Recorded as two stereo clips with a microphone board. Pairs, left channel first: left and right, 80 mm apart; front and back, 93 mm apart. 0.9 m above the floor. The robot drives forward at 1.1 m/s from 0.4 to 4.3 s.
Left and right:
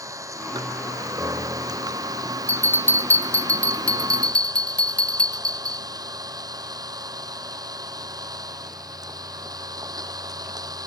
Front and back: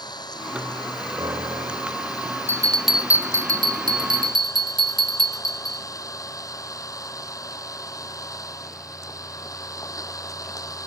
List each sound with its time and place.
0.0 s an engine running: 40° right; by 10.9 s 50° right
1.2 s a piano: 145° right; by 2.1 s 150° right
2.5 s a bell: 45° left; by 5.8 s 165° left